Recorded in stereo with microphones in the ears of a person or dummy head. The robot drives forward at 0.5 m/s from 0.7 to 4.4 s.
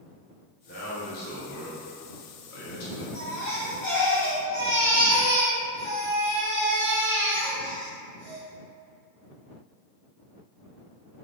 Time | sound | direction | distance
0.7 | a man speaking | 45° left (ahead or behind) | 1.4 m
3.1 | a baby crying | 35° left (ahead or behind) | 1.7 m